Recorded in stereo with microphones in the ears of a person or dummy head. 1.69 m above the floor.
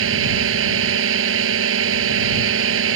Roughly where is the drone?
Right.